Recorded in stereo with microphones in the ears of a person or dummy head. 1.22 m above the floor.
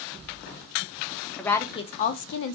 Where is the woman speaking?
5° left (ahead or behind), 0.6 m; by 2.5 s 65° left (ahead or behind), 0.6 m.